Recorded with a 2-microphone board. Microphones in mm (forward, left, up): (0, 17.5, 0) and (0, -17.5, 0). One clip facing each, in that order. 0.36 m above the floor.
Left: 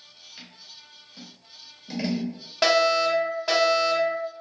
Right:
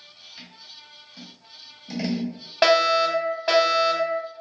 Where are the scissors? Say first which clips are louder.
Right 1 dB; 15° left (ahead or behind), 1.4 m.